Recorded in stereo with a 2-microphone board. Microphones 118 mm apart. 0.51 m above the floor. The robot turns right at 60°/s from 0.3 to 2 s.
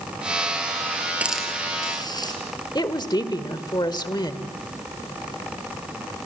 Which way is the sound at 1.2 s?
10° right (ahead or behind).